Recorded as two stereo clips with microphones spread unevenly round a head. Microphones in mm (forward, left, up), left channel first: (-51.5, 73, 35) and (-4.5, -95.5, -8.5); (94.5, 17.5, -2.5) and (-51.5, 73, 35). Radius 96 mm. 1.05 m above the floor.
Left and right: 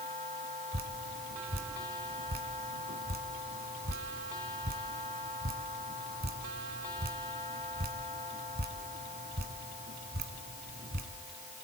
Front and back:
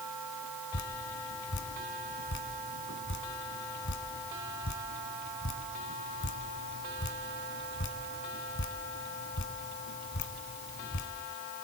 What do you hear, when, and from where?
0.7 s dripping: 25° right, 1.9 m